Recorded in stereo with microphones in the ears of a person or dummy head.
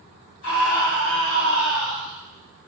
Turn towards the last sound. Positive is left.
turn(degrees=75)  # may be behind; listen again after turning